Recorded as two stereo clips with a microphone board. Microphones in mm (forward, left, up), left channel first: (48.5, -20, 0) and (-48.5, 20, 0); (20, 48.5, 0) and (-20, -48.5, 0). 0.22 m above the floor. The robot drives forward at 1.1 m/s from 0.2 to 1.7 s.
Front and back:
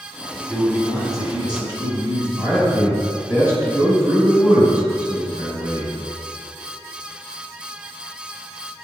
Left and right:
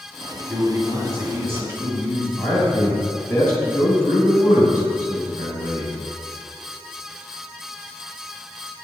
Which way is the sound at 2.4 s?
125° left.